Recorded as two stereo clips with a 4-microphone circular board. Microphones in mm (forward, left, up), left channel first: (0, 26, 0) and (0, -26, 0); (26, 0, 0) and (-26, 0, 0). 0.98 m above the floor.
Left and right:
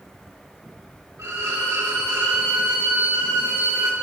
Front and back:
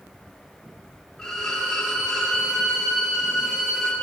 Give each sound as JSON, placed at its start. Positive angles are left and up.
{"t": 1.2, "sound": "a violin", "azimuth_deg": -80, "distance_m": 1.9}